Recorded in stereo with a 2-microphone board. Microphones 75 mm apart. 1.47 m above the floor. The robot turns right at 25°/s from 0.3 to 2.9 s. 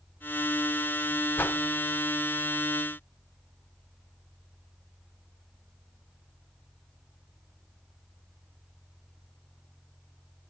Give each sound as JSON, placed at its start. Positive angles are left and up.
{"t": 1.4, "sound": "a whoosh", "side_deg": 25, "distance_m": 0.6}